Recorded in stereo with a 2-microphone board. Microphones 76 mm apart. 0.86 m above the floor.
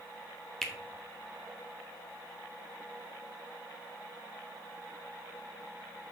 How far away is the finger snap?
About 0.9 m.